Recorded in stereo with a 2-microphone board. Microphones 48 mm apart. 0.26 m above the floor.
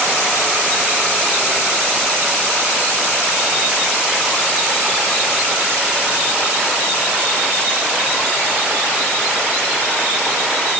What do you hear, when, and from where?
Only background noise.